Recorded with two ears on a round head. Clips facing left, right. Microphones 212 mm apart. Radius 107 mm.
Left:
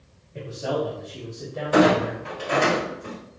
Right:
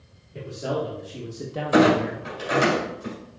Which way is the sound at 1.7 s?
20° right (ahead or behind).